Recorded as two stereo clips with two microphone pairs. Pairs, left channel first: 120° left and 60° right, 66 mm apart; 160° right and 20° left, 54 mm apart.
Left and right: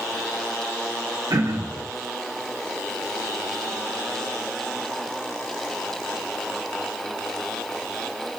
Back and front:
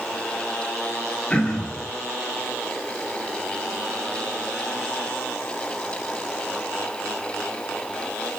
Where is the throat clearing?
85° right, 0.8 m.